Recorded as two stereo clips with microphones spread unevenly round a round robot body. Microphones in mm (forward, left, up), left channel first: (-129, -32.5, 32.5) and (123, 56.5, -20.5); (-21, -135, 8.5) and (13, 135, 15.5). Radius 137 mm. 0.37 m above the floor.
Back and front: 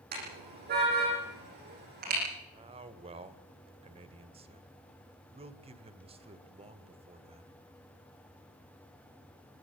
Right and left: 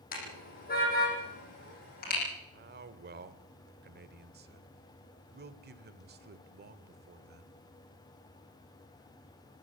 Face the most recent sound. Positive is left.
turn(degrees=55)